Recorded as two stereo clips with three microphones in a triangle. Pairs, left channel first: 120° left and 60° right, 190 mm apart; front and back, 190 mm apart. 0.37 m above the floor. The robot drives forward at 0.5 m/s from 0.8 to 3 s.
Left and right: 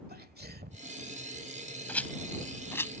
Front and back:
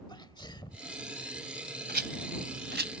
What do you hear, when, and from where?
0.1 s a sneeze: 65° right
1.9 s a rattle: 160° right; by 2.9 s 165° right